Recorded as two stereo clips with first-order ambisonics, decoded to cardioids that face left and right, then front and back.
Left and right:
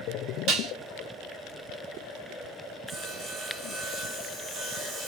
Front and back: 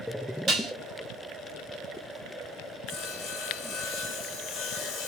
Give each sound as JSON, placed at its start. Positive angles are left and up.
{"t": 0.5, "sound": "dishes clattering", "azimuth_deg": -125, "distance_m": 1.1}
{"t": 2.9, "sound": "sawing", "azimuth_deg": -25, "distance_m": 0.8}